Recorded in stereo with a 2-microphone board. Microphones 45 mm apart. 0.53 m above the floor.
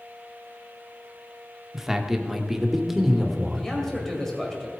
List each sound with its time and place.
1.7 s a man speaking: 10° right (ahead or behind), 1.1 m; by 3.7 s 5° right (ahead or behind), 1.8 m
3.5 s a man speaking: 10° left (ahead or behind), 2 m